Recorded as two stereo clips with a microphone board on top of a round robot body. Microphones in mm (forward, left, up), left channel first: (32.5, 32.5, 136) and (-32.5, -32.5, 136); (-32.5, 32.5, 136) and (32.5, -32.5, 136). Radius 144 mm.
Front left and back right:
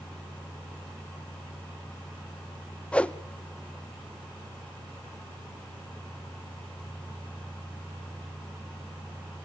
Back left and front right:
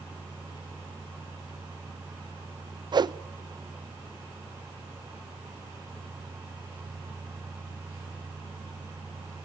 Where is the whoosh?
30° right, 0.7 m.